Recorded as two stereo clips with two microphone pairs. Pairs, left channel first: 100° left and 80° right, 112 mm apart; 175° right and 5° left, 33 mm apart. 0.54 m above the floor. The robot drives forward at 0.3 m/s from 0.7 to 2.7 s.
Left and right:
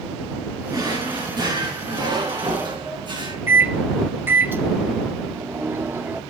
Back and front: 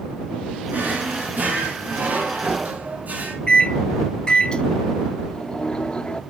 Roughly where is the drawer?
Ahead right.